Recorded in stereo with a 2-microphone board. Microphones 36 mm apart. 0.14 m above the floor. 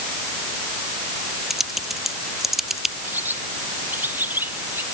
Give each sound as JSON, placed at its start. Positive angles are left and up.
{"t": 1.5, "sound": "typing on a keyboard", "side_deg": -10}
{"t": 3.0, "sound": "a bird", "side_deg": -70}